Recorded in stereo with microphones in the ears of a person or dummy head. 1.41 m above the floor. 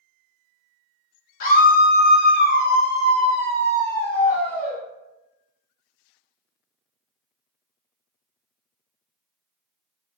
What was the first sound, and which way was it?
A scream, 45° left (ahead or behind).